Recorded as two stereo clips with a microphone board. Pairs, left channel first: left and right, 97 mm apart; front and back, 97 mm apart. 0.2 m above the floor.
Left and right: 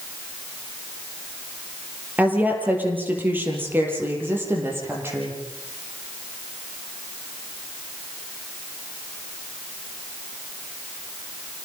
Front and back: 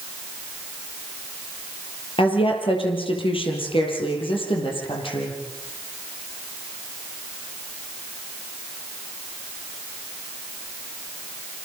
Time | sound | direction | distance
2.2 | a woman speaking | 20° right | 5.5 m